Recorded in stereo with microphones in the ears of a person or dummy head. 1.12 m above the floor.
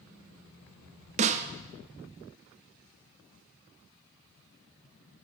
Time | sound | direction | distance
1.2 | a snare drum | 35° right (ahead or behind) | 0.8 m